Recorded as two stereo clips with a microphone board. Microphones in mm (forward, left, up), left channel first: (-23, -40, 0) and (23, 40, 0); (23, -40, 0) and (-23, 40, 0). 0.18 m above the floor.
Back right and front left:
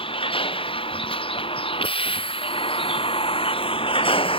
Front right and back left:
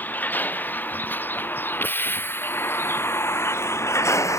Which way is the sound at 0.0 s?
130° right.